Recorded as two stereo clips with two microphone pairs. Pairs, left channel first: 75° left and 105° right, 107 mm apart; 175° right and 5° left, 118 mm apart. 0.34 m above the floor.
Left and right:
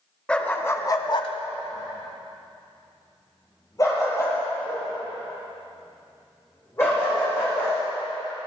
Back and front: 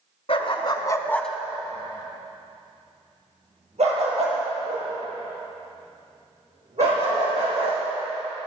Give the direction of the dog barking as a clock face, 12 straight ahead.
7 o'clock.